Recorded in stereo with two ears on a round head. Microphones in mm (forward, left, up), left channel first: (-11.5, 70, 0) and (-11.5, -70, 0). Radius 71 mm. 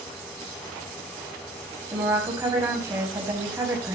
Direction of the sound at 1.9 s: 15° right (ahead or behind).